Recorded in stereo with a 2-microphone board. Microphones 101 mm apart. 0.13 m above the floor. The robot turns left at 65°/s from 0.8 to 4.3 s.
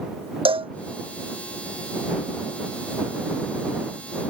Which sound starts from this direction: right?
A cowbell, at 0.5 s.